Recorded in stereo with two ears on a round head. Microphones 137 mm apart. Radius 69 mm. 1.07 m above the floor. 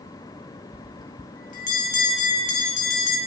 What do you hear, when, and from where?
0.7 s a bell: 55° left (ahead or behind), 8.5 m